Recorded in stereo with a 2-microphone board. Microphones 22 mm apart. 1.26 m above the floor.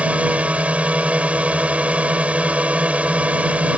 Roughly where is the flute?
I don't hear a flute.